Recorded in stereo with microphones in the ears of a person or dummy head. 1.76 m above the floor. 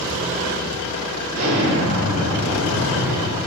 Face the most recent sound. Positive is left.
turn(degrees=-65)  # may be behind; listen again after turning